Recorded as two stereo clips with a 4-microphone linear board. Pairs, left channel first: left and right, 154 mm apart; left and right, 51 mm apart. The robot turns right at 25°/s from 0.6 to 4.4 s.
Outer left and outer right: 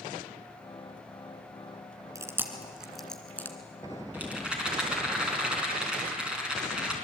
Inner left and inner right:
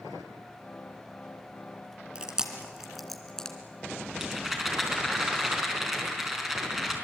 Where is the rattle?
10° right (ahead or behind), 5 m; by 7.0 s 5° right (ahead or behind), 5 m.